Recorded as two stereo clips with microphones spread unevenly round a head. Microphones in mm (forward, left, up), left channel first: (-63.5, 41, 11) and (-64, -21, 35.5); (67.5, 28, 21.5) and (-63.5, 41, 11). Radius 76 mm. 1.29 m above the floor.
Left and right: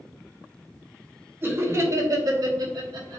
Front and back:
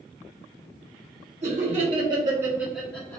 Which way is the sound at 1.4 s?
145° right.